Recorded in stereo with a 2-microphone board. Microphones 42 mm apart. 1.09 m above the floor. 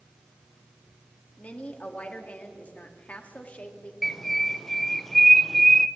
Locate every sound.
1.4 s a woman speaking: 35° left (ahead or behind), 2.0 m
4.0 s a bird: 5° left (ahead or behind), 0.6 m